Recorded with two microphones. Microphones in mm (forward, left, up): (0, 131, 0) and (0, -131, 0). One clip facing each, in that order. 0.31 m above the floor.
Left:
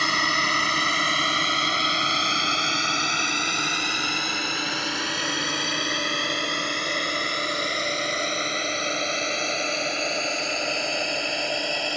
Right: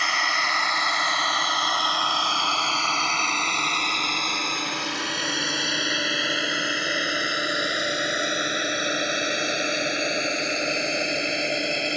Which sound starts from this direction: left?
A drone, at 0.0 s.